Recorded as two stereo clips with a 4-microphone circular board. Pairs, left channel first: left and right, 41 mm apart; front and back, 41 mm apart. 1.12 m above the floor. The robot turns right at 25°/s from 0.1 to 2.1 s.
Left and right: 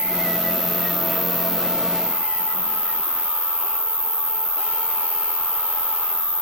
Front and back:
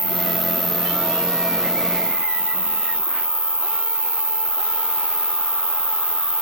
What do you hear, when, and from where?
0.0 s an insect: 60° right, 5 m; by 6.4 s 10° right, 5 m